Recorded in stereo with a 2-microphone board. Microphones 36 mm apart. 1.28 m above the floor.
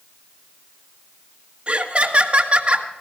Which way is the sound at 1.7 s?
30° right (ahead or behind).